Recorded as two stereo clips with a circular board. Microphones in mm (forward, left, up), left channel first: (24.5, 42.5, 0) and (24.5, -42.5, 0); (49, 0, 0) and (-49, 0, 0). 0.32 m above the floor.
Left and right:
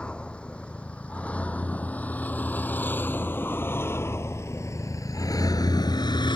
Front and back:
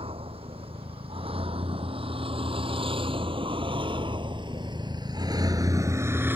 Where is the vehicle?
170° left; by 6.4 s 110° left.